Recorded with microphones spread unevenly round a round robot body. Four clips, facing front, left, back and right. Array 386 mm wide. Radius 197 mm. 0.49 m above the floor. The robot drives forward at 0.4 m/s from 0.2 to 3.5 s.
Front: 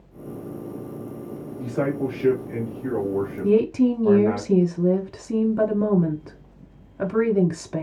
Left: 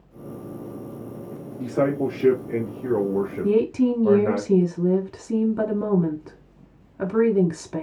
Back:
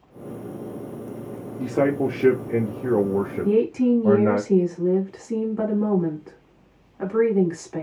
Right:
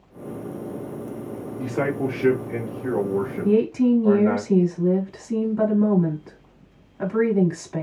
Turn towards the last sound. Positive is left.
turn(degrees=25)